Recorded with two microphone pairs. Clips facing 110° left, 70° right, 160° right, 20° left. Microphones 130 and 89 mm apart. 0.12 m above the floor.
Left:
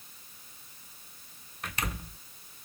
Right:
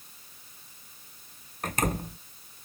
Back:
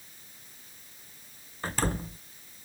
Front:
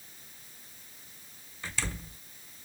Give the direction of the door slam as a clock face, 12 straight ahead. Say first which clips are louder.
Right 8 dB, back 8 dB; 4 o'clock.